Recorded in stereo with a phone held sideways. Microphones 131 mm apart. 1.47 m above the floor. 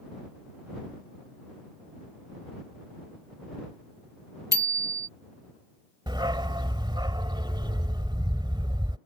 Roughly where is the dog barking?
Right.